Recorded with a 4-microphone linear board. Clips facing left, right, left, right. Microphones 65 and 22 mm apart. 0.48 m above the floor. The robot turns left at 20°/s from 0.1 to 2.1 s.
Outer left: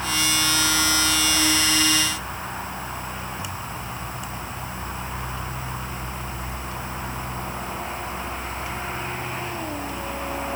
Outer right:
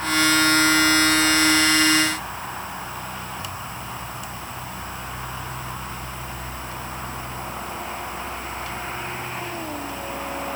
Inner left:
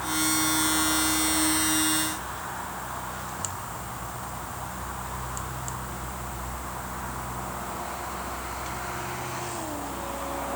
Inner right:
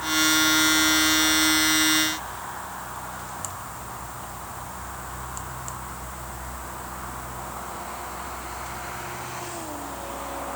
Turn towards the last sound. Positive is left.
No sound to turn to.